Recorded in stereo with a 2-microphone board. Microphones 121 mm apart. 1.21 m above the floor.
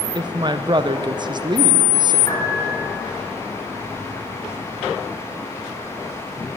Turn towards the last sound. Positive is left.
turn(degrees=30)  # may be behind; listen again after turning